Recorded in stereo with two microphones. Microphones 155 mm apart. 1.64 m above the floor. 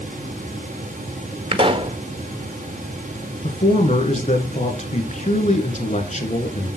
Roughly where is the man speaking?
Left.